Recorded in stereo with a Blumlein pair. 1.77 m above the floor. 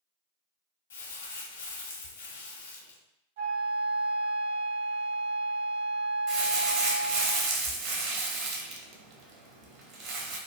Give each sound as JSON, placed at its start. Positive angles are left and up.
{"t": 0.9, "sound": "crumpling", "azimuth_deg": 65, "distance_m": 0.5}
{"t": 3.4, "sound": "a flute", "azimuth_deg": -60, "distance_m": 0.7}
{"t": 6.3, "sound": "crumpling", "azimuth_deg": -35, "distance_m": 0.6}